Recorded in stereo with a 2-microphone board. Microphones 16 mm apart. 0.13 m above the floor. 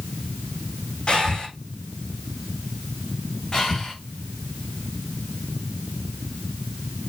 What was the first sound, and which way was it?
Breathing, 75° left (ahead or behind).